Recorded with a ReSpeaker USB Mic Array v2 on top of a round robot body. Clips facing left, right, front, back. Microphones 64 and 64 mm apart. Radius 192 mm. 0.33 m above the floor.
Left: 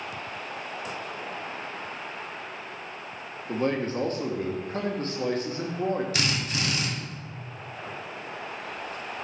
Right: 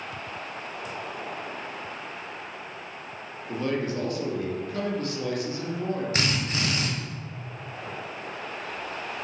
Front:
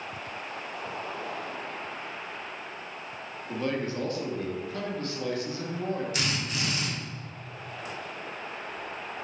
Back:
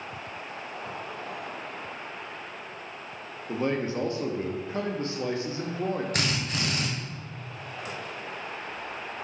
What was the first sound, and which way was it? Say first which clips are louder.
A man speaking: left 1 dB, back 3 dB; 125° left.